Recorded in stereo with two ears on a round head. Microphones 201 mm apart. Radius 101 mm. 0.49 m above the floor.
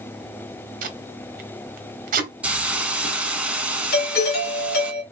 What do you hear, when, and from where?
0.8 s tape being pulled: 40° right (ahead or behind), 0.9 m
2.4 s a hiss: 5° right (ahead or behind), 0.7 m
3.9 s a doorbell: 45° left (ahead or behind), 1.8 m